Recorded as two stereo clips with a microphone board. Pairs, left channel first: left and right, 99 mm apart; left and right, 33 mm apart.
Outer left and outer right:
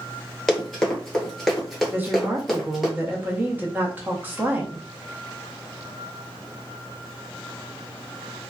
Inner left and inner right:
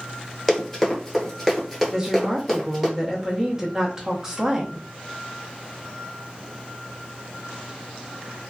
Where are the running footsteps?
5° left (ahead or behind), 1.3 m; by 2.9 s 5° right (ahead or behind), 1.3 m.